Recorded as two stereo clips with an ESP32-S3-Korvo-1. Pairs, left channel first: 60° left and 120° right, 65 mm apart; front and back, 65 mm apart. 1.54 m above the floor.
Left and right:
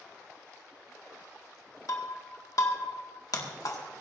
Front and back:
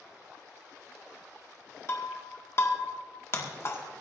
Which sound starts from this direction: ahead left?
Breaking glass, at 1.9 s.